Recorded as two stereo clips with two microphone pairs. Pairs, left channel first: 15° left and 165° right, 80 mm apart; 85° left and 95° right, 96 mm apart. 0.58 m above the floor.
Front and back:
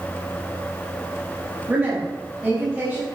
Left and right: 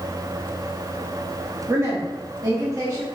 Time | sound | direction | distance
1.7 | a woman speaking | 115° right | 1.0 m